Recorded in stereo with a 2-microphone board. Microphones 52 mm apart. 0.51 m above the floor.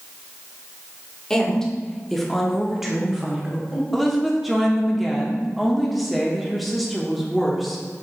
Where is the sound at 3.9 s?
Centre (ahead or behind), 0.7 m.